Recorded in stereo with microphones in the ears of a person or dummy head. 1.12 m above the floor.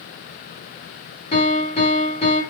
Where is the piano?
30° left (ahead or behind), 1.1 m.